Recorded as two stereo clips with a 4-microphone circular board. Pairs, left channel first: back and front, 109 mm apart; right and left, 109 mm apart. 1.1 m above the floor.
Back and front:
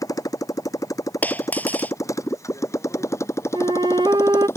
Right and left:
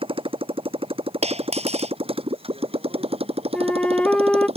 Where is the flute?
15° right.